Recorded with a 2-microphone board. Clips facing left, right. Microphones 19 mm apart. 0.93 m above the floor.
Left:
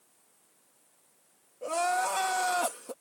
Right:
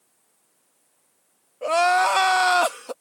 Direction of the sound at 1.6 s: 55° right (ahead or behind).